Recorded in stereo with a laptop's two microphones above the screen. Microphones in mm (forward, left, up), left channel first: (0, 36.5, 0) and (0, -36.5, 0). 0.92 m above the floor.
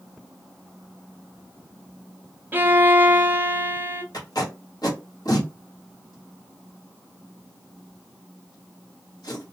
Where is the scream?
No scream in this recording.